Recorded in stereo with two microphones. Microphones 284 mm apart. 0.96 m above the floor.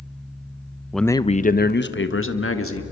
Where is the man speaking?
Centre (ahead or behind), 0.5 m; by 2.8 s 50° left (ahead or behind), 1.8 m.